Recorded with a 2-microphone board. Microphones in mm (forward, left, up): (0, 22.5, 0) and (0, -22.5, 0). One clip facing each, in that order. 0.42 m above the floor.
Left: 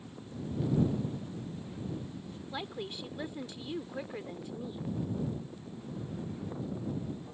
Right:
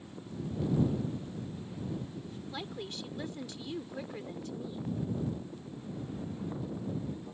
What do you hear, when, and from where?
2.5 s a woman speaking: 15° left (ahead or behind)